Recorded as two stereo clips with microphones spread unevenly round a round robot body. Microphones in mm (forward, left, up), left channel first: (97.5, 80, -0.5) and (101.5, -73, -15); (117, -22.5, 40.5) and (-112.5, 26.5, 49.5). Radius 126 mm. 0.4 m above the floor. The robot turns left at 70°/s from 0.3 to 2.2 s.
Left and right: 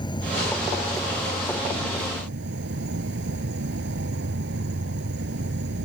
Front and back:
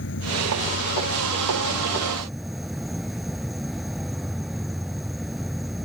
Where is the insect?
30° left; by 5.8 s 105° right.